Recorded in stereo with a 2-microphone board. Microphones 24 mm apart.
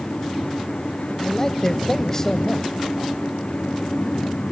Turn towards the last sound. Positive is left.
turn(degrees=20)  # may be behind; listen again after turning